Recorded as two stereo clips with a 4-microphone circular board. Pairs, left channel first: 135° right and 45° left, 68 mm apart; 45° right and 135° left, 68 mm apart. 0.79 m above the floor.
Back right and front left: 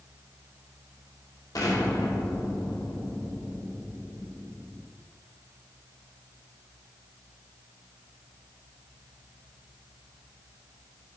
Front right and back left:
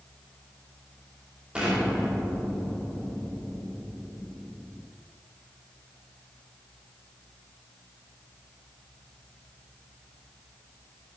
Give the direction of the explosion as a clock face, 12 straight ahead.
5 o'clock.